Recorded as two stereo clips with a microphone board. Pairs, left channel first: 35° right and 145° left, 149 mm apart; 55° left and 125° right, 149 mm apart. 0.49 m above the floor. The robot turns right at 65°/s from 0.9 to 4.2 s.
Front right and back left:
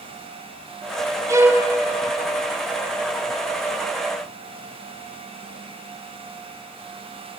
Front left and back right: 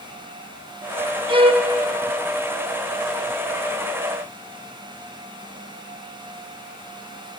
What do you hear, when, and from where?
1.3 s a violin: 160° right, 0.5 m; by 1.7 s 130° right, 0.5 m